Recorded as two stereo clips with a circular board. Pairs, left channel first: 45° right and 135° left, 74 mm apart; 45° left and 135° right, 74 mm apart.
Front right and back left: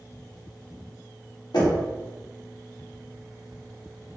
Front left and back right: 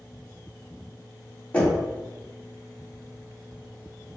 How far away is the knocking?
About 1.6 m.